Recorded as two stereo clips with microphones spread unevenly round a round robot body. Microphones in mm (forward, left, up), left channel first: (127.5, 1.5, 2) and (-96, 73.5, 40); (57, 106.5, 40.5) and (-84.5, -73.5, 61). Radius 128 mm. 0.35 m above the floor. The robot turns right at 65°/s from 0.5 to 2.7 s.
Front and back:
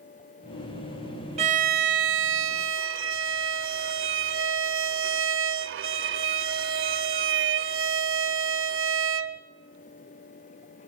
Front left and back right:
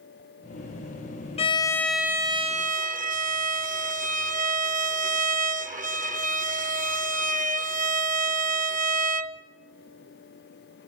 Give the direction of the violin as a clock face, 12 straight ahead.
9 o'clock.